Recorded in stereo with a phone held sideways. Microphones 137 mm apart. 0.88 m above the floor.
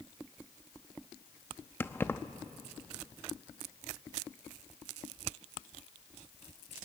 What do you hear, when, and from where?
1.8 s keys jangling: 15° left (ahead or behind), 0.8 m